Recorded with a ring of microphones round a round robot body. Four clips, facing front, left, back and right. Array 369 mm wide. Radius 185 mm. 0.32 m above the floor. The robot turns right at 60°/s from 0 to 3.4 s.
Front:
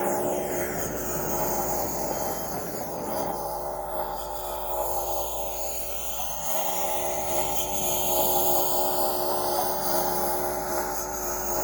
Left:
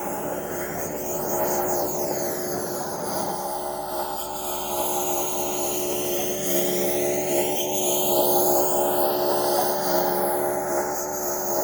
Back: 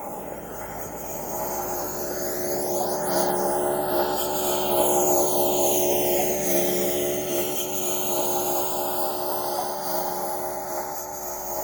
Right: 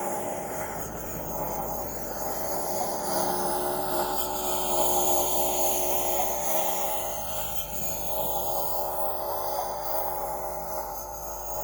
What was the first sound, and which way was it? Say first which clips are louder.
A lawn mower: left 2 dB, front 8 dB; 5° left.